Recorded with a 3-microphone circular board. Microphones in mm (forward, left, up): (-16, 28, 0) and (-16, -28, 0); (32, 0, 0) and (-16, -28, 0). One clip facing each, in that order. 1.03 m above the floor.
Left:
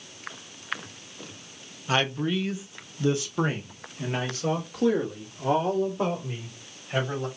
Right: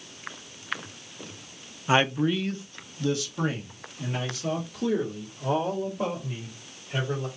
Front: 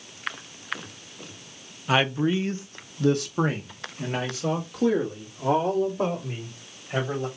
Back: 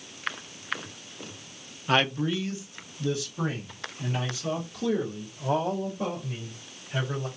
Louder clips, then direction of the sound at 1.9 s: Right 3 dB, front 2 dB; 55° right.